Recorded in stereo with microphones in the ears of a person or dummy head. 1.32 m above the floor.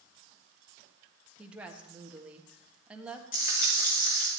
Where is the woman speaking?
10° right (ahead or behind), 1.4 m.